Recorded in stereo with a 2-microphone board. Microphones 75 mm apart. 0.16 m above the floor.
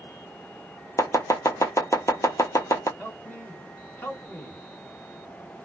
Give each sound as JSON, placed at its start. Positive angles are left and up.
{"t": 1.0, "sound": "chopping", "side_deg": 40, "distance_m": 0.8}
{"t": 3.0, "sound": "a man speaking", "side_deg": 25, "distance_m": 1.9}